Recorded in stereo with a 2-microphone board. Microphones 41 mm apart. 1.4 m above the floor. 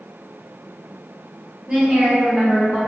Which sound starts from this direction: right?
A woman speaking, at 1.7 s.